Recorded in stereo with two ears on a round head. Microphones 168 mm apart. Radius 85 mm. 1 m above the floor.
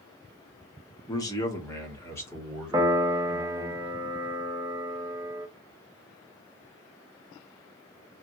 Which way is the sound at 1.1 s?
20° left (ahead or behind).